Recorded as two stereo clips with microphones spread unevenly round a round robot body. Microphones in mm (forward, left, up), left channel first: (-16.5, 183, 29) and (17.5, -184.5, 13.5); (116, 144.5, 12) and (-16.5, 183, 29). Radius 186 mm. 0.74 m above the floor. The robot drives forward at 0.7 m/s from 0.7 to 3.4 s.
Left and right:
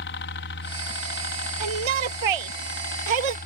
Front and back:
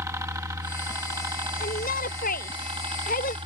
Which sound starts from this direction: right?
A shout, at 1.6 s.